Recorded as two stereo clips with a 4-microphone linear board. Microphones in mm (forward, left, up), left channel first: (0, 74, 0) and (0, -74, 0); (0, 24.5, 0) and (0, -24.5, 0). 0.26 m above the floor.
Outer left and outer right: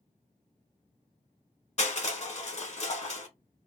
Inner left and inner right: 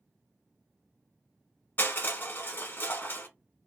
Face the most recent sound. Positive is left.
turn(degrees=50)  # may be behind; listen again after turning